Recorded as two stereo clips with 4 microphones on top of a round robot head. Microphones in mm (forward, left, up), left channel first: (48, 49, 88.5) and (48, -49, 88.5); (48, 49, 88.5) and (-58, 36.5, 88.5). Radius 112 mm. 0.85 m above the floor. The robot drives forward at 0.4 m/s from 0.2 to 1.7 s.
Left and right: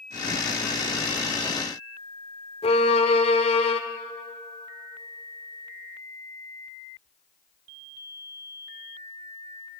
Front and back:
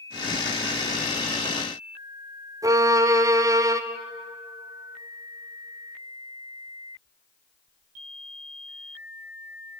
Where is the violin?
130° left, 1.1 m.